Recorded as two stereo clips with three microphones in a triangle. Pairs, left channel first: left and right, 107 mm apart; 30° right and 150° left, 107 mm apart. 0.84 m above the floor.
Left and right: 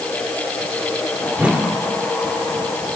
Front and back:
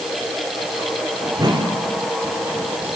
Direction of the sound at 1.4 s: 165° right.